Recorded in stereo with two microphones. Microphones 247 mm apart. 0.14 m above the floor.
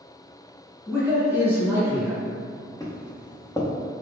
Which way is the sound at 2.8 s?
15° left (ahead or behind).